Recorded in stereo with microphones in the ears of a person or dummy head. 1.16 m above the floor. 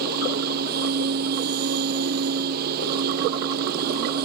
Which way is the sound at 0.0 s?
55° right (ahead or behind).